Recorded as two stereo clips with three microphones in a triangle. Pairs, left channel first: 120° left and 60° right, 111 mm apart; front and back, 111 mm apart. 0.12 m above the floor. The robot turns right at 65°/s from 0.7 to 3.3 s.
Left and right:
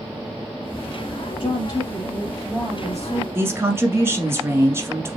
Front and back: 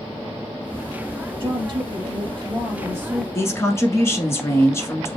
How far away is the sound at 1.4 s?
About 2.5 m.